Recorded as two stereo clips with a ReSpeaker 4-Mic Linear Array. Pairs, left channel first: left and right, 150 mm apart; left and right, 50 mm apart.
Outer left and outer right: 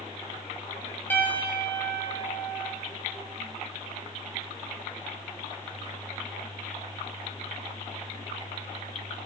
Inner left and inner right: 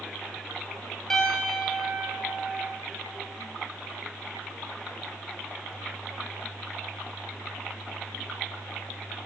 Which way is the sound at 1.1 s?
15° left (ahead or behind).